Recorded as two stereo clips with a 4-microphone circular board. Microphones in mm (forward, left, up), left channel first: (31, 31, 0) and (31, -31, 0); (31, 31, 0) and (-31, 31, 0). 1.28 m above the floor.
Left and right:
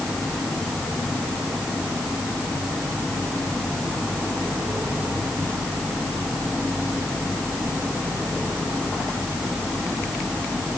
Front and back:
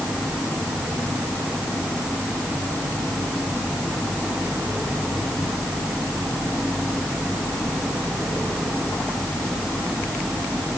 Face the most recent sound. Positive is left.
No sound to turn to.